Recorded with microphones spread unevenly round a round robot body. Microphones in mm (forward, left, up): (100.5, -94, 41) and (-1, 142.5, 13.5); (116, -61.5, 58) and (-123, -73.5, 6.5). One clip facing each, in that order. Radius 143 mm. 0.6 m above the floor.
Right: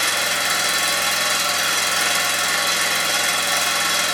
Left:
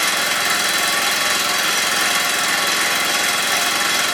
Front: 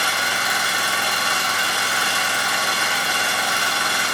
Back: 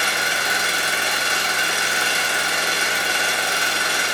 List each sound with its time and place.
0.0 s an engine running: 120° left, 0.8 m